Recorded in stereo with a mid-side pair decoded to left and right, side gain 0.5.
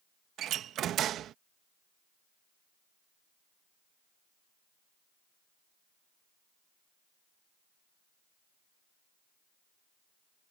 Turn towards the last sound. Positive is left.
turn(degrees=-65)